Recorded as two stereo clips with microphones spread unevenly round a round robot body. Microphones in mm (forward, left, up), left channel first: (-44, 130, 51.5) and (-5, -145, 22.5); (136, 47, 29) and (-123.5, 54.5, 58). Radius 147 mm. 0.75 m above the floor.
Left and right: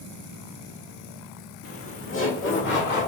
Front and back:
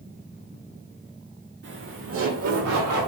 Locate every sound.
1.6 s laughter: 135° left, 2 m; by 3.1 s 155° left, 2.5 m